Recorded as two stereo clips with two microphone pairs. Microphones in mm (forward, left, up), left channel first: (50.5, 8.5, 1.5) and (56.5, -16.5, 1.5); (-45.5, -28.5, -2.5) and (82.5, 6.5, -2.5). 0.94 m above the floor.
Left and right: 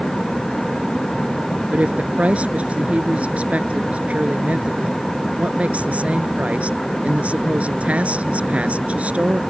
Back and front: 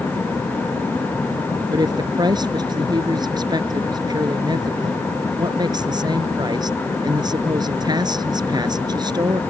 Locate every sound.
1.7 s a woman speaking: 45° right